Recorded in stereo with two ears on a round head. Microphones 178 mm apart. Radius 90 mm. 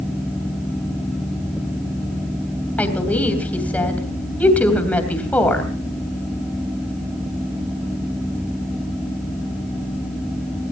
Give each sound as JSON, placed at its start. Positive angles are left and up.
{"t": 2.8, "sound": "a woman speaking", "side_deg": 10, "distance_m": 3.0}